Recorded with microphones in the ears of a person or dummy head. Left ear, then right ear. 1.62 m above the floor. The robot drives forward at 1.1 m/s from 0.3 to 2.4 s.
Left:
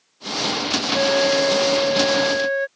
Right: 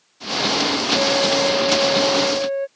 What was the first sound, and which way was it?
A flute, 50° left (ahead or behind).